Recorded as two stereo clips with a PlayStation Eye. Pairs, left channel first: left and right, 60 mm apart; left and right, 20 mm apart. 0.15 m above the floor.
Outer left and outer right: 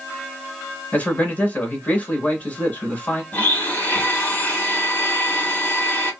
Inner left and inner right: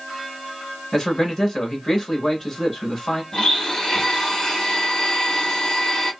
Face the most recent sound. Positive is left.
turn(degrees=30)  # may be behind; listen again after turning